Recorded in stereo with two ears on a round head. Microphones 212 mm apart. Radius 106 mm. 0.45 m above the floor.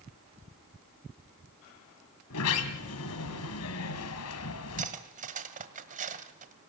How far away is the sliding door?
About 2 m.